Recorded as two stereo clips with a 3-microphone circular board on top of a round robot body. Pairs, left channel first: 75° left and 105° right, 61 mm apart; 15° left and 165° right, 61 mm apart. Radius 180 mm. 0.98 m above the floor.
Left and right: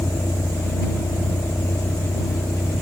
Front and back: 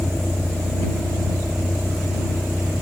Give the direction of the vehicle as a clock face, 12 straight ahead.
8 o'clock.